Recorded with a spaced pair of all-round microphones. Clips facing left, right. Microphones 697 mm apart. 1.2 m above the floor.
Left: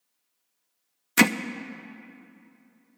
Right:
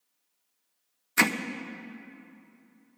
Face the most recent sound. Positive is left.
turn(degrees=65)  # may be behind; listen again after turning